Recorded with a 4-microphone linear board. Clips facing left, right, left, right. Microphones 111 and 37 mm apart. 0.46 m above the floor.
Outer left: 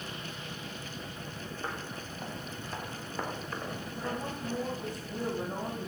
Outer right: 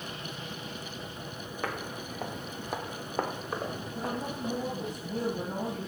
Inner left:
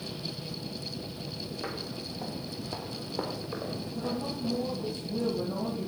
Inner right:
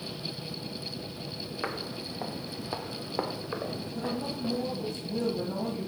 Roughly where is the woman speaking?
Right.